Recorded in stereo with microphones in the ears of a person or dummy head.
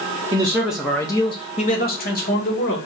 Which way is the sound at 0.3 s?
20° right (ahead or behind).